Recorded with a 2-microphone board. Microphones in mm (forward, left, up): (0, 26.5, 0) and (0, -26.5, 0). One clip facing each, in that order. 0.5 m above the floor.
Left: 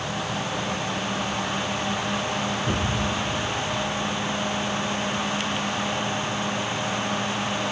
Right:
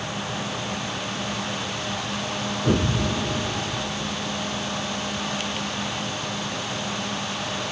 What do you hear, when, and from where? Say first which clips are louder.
2.6 s an explosion: right 2 dB; 35° right (ahead or behind)